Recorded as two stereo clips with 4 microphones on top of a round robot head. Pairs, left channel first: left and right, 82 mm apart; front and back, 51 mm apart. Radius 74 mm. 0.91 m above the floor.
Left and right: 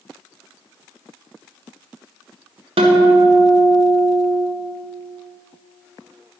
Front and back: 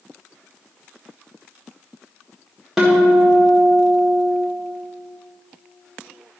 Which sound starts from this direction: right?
A guitar, at 2.8 s.